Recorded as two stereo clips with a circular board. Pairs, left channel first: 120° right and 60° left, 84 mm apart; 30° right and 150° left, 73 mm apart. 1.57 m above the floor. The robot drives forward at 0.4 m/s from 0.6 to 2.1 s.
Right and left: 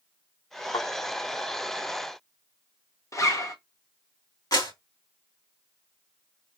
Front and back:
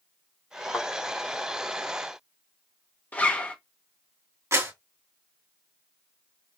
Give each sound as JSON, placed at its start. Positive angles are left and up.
{"t": 0.7, "sound": "a thud", "azimuth_deg": -100, "distance_m": 2.5}
{"t": 3.1, "sound": "a zipper", "azimuth_deg": -90, "distance_m": 1.1}
{"t": 4.5, "sound": "a clap", "azimuth_deg": -160, "distance_m": 3.0}